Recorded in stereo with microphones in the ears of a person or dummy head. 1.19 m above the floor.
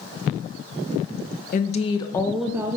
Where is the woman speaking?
40° left (ahead or behind), 0.7 m; by 2.8 s 20° right (ahead or behind), 0.6 m.